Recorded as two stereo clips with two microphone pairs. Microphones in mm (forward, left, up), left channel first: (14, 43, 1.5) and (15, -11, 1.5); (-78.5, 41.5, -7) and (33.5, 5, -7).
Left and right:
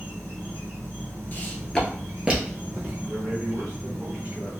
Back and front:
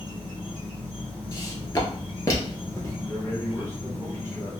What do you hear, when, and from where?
0.0 s an insect: 80° right, 1.6 m
1.3 s footsteps: 125° left, 0.9 m; by 2.9 s 135° right, 1.3 m
3.0 s a man speaking: 130° right, 1.5 m